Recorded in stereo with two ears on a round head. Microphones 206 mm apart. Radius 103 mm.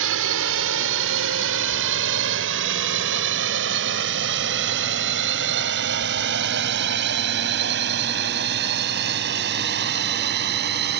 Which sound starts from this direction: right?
A drone, at 0.0 s.